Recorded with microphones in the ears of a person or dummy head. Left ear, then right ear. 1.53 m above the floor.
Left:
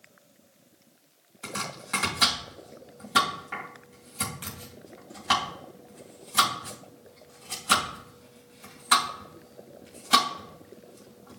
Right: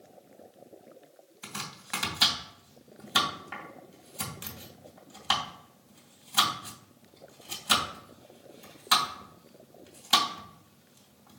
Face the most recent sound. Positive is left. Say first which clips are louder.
# left 5 dB
turn(degrees=-15)  # may be behind; listen again after turning